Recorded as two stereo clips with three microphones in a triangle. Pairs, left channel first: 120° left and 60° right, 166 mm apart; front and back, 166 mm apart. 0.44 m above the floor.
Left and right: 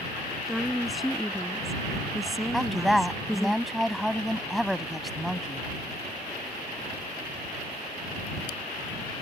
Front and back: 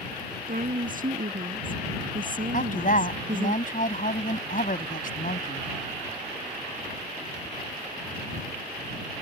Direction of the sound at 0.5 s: 150° right.